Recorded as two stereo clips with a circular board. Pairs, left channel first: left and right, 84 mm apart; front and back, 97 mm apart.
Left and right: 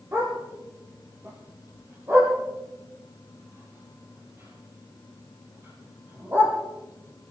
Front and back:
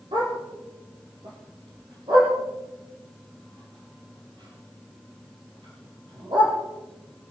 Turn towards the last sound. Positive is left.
turn(degrees=-150)